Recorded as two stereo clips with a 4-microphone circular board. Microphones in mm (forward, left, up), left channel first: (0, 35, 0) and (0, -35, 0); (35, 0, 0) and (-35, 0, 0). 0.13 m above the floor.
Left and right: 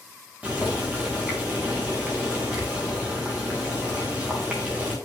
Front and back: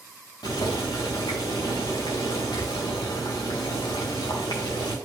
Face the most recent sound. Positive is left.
turn(degrees=-20)